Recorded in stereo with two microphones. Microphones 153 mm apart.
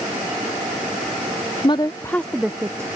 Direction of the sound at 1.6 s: 35° left (ahead or behind).